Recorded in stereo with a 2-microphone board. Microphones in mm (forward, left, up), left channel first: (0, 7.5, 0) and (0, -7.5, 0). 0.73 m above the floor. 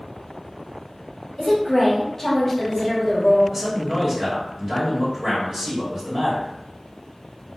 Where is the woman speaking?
20° left (ahead or behind), 0.9 m.